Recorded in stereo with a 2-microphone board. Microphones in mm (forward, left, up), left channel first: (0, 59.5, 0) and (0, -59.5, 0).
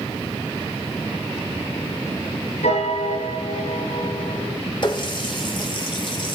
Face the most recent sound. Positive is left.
turn(degrees=45)  # may be behind; listen again after turning